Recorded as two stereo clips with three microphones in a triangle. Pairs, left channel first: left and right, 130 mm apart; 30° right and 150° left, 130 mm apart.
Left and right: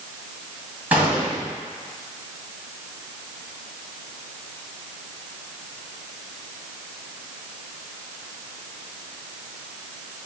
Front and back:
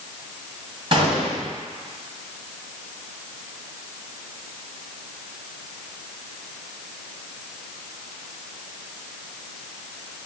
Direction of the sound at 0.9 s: 165° right.